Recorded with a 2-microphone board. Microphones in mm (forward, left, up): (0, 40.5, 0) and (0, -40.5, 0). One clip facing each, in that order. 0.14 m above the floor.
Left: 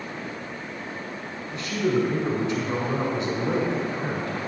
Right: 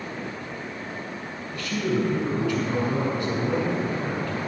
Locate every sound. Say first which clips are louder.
1.5 s a man speaking: left 2 dB; 20° left (ahead or behind), 1.5 m